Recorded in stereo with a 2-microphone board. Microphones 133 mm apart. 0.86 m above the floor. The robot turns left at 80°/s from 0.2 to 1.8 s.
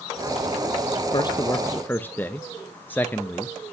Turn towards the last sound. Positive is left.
turn(degrees=15)  # may be behind; listen again after turning